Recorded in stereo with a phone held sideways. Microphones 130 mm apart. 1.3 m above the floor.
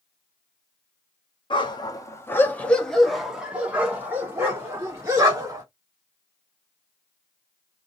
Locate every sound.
1.5 s a dog barking: 40° left (ahead or behind), 0.9 m; by 5.6 s 25° right (ahead or behind), 2 m